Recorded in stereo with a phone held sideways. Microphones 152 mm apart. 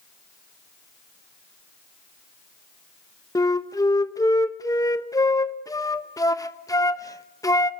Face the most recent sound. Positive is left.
turn(degrees=20)  # may be behind; listen again after turning